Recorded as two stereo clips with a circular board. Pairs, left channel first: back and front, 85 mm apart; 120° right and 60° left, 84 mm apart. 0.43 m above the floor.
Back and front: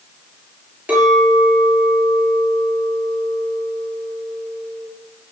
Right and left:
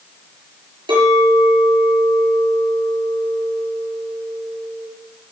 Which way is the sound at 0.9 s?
70° left.